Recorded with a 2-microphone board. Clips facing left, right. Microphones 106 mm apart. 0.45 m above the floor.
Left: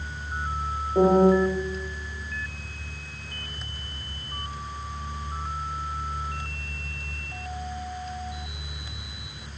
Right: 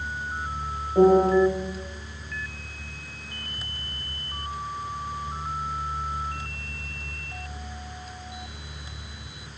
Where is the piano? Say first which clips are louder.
Right 1 dB; 5° left (ahead or behind), 0.5 m.